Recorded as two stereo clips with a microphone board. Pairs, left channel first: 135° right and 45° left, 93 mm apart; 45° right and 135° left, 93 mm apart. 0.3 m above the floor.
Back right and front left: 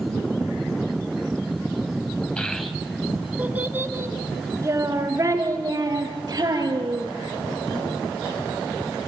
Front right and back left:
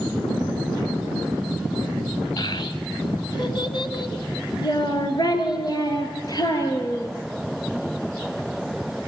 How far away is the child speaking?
About 1.3 m.